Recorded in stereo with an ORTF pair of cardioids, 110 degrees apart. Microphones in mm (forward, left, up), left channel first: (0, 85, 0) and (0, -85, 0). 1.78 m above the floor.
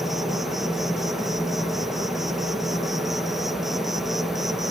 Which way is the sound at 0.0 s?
Straight ahead.